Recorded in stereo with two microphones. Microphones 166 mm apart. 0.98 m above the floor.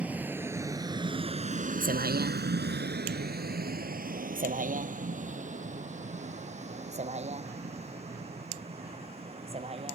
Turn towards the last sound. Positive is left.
turn(degrees=-35)  # may be behind; listen again after turning